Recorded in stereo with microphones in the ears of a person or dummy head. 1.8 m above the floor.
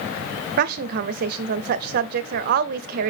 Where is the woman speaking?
55° right (ahead or behind), 0.6 m.